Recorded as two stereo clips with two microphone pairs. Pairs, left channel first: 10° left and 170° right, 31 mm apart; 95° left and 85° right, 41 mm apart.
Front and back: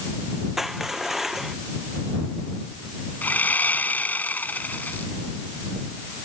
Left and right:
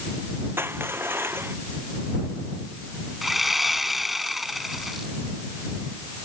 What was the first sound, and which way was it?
Crushing, 90° right.